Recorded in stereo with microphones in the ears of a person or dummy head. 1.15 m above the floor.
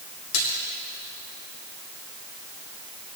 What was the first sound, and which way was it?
A splash, 70° left (ahead or behind).